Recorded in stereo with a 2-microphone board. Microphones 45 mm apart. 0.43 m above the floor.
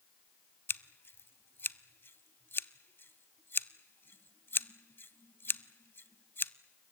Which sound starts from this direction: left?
Scissors, at 0.7 s.